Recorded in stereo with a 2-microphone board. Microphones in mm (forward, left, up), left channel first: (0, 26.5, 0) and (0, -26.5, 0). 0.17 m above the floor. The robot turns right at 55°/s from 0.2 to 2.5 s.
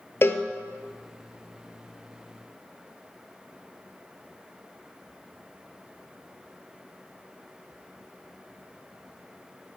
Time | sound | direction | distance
0.2 | a cowbell | 50° left (ahead or behind) | 0.7 m